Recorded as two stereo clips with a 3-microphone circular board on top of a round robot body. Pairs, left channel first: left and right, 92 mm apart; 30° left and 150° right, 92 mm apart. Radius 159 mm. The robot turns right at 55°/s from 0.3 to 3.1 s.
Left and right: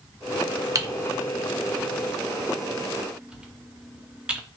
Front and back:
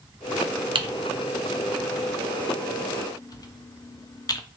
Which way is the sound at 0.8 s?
140° right.